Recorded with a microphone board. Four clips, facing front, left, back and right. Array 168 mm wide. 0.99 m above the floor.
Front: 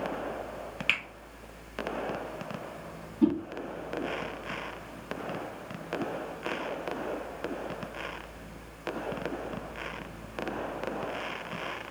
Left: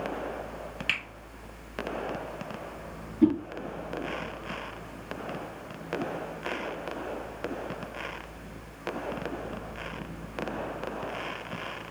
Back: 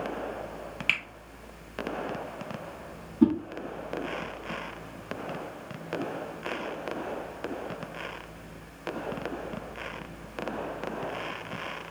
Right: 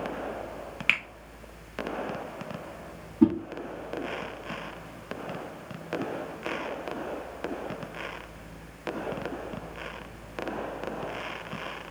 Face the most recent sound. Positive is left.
turn(degrees=-125)